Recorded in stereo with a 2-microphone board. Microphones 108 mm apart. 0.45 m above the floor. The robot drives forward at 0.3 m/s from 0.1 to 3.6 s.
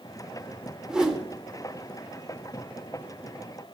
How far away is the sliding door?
No sliding door in this recording.